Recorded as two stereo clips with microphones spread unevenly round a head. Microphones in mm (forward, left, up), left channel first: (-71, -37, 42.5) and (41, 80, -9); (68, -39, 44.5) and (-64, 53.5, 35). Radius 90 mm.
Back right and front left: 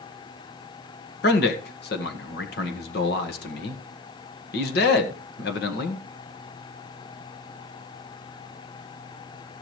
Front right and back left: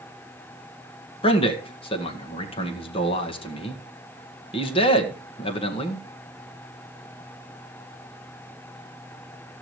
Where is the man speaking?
95° right, 1.8 m.